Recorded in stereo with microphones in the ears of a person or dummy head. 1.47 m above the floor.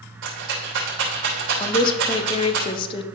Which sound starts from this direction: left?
A woman speaking, at 1.6 s.